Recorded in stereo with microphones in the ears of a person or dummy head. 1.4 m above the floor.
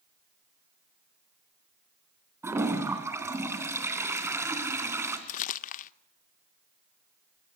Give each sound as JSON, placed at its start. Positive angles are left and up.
{"t": 2.4, "sound": "a toilet flushing", "side_deg": -10, "distance_m": 3.0}
{"t": 5.3, "sound": "crumpling", "side_deg": 50, "distance_m": 0.9}